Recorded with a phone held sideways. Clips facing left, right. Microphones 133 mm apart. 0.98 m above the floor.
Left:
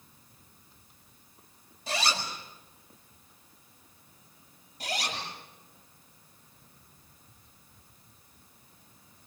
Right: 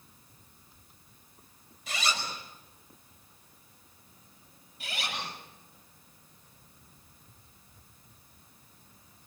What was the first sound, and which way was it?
A zipper, 35° left (ahead or behind).